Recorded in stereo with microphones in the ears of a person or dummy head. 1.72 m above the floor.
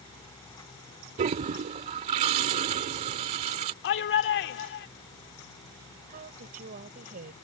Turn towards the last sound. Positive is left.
turn(degrees=-40)  # may be behind; listen again after turning